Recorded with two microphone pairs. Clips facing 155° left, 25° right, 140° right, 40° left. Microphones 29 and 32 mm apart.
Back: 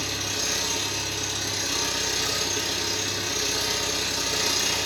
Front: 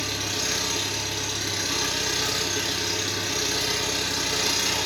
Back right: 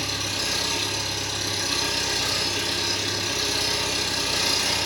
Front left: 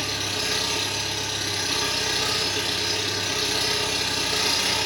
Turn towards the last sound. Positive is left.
turn(degrees=0)